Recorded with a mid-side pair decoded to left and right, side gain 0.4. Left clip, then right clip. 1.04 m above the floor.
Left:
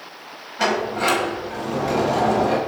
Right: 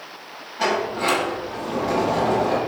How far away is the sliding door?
About 5 m.